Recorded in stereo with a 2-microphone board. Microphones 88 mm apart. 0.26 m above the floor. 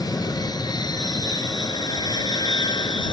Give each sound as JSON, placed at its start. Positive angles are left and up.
{"t": 0.0, "sound": "an aircraft", "side_deg": 45}